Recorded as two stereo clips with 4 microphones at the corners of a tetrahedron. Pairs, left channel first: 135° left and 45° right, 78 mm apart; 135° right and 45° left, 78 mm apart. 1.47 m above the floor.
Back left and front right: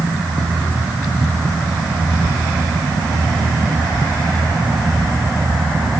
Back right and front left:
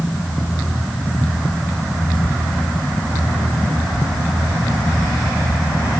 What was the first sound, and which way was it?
Only background noise.